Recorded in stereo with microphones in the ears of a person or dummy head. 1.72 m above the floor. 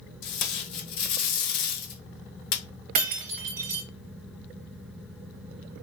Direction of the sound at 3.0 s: 40° right (ahead or behind).